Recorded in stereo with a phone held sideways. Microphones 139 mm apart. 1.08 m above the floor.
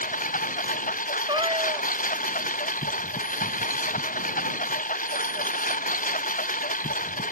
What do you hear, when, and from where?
0.0 s a lawn mower: 75° left (ahead or behind)
1.3 s a cat meowing: 35° right (ahead or behind)